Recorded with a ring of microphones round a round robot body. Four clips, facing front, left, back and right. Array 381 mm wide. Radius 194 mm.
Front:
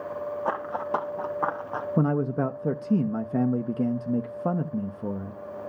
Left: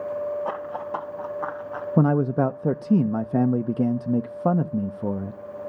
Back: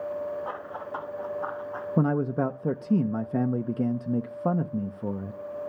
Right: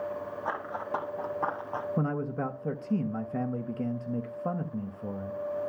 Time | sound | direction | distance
0.5 | running footsteps | 15° left | 2.0 m
2.0 | a man speaking | 90° left | 0.5 m